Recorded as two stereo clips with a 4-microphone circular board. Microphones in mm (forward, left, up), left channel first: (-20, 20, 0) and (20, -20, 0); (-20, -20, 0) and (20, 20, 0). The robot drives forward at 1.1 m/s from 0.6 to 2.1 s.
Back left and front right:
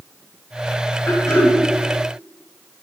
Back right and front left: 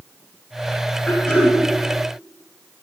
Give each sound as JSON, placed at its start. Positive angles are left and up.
{"t": 1.1, "sound": "throat clearing", "azimuth_deg": 160, "distance_m": 3.0}